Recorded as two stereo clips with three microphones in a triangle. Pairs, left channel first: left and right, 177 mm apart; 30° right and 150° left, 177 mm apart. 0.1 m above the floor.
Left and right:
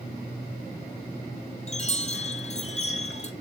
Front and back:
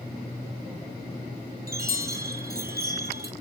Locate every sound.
1.7 s a chime: 135° left, 1.2 m